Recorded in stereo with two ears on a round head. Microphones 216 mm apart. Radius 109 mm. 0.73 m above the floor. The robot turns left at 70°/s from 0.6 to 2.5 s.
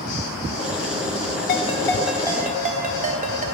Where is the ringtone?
40° left, 1.0 m; by 3.5 s 30° right, 1.0 m.